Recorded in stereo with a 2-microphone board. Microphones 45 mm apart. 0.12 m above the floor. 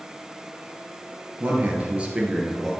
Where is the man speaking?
40° right (ahead or behind), 2.5 m; by 2.7 s 5° right (ahead or behind), 3 m.